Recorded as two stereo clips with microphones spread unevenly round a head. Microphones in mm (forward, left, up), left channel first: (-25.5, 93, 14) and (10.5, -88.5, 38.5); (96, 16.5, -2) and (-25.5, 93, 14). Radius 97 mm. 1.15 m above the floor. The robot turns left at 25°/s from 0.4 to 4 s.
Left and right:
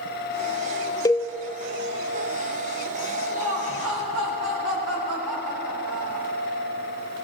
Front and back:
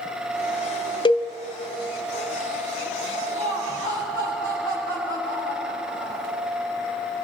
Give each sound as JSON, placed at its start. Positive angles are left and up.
{"t": 1.1, "sound": "a cowbell", "azimuth_deg": 25, "distance_m": 1.3}
{"t": 3.3, "sound": "laughter", "azimuth_deg": -85, "distance_m": 6.5}